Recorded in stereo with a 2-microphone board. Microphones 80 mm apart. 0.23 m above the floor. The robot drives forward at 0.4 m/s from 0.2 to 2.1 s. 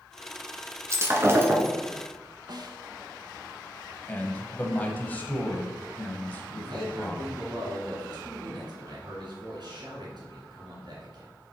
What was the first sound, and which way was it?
Breaking glass, 35° right (ahead or behind).